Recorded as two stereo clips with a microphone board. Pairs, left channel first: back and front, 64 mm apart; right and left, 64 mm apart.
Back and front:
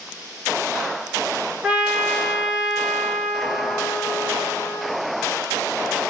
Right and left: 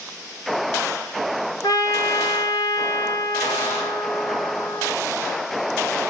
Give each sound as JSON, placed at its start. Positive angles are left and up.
{"t": 1.6, "sound": "a trumpet", "azimuth_deg": -80, "distance_m": 4.0}